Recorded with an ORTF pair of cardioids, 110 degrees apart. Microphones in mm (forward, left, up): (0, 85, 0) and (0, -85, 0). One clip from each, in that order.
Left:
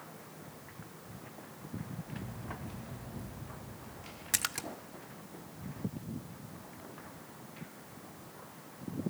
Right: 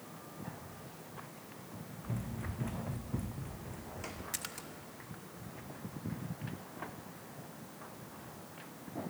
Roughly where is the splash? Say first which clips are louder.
Left 8 dB; ahead left.